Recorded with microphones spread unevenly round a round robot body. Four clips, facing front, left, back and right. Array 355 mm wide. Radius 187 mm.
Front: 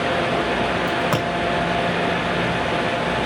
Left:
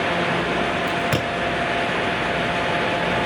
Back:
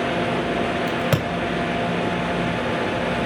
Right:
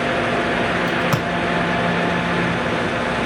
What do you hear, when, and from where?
0.9 s a crack: 175° left, 2 m